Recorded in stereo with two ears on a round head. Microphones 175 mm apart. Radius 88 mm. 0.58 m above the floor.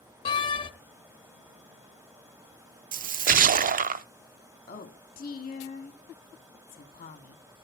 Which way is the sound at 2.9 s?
45° right (ahead or behind).